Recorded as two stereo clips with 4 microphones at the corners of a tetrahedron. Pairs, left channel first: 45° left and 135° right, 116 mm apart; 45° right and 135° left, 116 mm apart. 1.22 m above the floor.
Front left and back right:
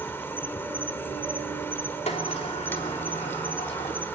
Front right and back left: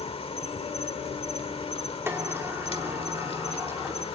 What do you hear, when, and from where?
0.0 s an insect: 25° right, 1.4 m
2.1 s a sliding door: 65° left, 2.5 m